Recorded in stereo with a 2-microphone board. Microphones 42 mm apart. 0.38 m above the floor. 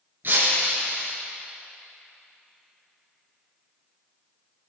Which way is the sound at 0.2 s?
55° right (ahead or behind).